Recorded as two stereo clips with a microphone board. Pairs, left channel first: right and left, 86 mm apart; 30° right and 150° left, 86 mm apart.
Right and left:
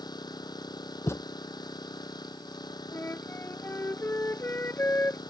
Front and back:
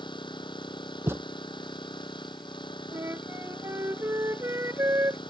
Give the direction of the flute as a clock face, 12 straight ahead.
5 o'clock.